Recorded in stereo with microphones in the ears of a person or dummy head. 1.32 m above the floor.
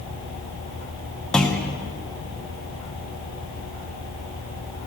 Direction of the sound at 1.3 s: 5° left (ahead or behind).